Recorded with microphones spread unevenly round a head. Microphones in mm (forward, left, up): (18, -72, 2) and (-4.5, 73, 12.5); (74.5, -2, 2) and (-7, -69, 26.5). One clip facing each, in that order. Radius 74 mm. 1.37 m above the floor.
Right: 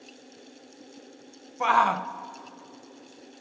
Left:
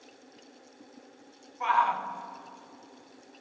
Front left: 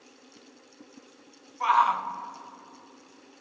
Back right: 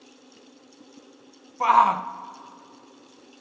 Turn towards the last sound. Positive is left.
turn(degrees=-100)